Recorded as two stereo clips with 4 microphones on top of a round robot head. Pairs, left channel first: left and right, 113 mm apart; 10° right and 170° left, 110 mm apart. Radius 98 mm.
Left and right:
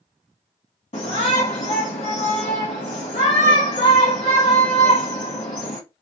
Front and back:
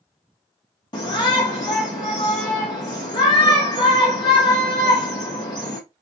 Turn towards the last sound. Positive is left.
turn(degrees=40)